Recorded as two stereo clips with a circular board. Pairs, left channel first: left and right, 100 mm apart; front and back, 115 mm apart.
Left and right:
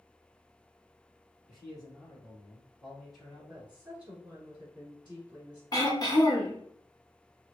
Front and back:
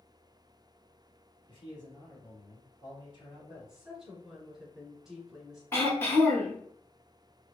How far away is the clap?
No clap in this recording.